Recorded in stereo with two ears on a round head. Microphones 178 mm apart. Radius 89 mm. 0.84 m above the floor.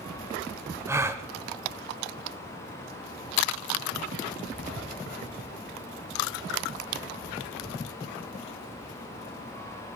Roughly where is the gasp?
Centre.